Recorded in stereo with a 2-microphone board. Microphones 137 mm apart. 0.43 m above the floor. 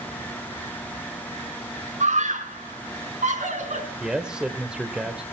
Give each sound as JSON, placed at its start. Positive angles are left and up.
{"t": 2.0, "sound": "a scream", "side_deg": -65, "distance_m": 5.0}
{"t": 4.0, "sound": "a man speaking", "side_deg": -5, "distance_m": 1.2}